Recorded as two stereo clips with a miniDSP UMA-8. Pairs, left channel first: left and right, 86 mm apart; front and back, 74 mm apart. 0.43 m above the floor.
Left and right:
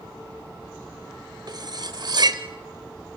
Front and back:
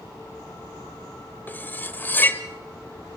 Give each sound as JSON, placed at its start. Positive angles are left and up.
{"t": 1.5, "sound": "cutlery clinking", "azimuth_deg": -65, "distance_m": 1.0}